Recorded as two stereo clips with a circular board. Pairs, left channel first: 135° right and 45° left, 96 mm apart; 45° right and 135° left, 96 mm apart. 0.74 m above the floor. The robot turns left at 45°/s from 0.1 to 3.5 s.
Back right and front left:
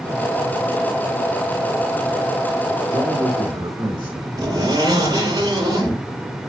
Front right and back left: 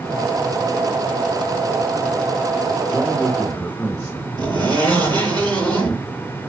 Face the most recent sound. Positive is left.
turn(degrees=95)